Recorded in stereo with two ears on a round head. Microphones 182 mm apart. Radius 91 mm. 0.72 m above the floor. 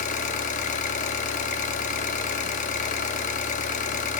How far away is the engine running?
About 0.7 m.